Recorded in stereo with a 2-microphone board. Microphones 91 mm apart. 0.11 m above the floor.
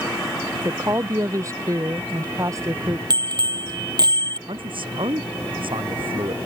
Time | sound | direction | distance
0.7 | a woman speaking | 35° right (ahead or behind) | ?
3.1 | a bicycle bell | 50° right (ahead or behind) | ?
4.5 | a man speaking | 70° right (ahead or behind) | ?